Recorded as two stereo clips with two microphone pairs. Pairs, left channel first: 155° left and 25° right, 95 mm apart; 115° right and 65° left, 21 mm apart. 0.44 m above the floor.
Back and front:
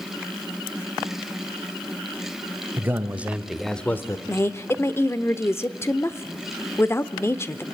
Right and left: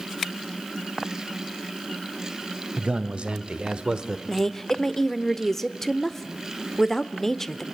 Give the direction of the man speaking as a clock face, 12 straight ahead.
11 o'clock.